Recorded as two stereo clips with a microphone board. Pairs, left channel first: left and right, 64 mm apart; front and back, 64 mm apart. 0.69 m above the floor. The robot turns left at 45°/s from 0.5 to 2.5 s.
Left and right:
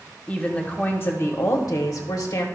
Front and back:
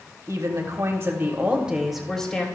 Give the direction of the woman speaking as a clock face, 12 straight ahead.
7 o'clock.